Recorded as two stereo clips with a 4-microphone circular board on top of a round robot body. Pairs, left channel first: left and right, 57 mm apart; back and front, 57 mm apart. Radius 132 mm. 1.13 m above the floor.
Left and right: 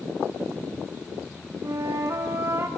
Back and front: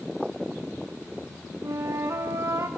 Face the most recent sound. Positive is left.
turn(degrees=-45)